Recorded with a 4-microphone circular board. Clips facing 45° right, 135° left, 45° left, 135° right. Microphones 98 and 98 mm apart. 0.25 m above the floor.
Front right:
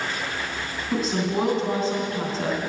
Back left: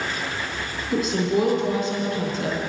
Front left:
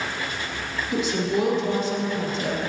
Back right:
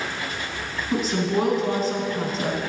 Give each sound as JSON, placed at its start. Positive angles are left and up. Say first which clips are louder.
{"t": 0.9, "sound": "a woman speaking", "louder": "back left 3 dB, back right 1 dB", "azimuth_deg": -90, "distance_m": 3.0}